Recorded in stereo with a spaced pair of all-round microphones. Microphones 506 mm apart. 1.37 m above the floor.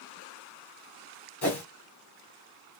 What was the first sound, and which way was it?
A whoosh, 50° left (ahead or behind).